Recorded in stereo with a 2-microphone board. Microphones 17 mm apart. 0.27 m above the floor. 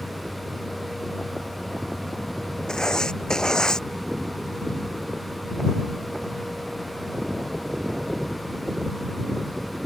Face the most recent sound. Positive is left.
turn(degrees=40)  # may be behind; listen again after turning